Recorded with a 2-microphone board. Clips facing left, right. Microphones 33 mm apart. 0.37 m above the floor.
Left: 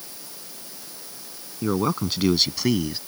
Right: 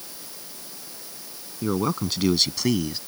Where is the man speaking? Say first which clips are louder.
Left 1 dB; 10° left (ahead or behind); by 3.0 s 5° left (ahead or behind).